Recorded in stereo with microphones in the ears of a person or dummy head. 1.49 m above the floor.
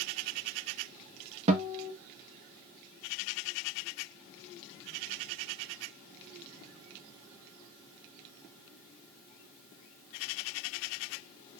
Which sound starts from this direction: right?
A guitar, at 1.5 s.